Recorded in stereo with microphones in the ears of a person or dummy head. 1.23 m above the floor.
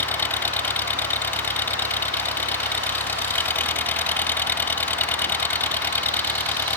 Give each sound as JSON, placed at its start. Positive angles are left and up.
{"t": 0.0, "sound": "an engine running", "side_deg": 10}